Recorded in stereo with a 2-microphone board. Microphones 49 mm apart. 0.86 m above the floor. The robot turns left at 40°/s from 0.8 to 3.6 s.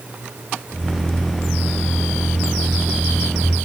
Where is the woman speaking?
No woman speaking in this recording.